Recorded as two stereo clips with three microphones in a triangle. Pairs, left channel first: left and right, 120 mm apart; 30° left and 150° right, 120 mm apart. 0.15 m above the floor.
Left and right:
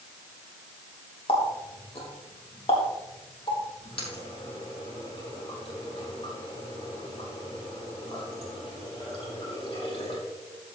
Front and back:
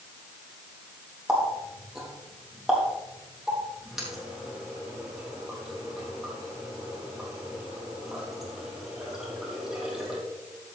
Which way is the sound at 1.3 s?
125° left.